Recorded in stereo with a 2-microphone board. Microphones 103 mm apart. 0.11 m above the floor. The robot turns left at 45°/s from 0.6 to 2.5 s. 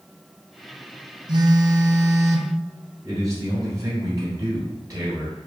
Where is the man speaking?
35° right (ahead or behind), 1.9 m.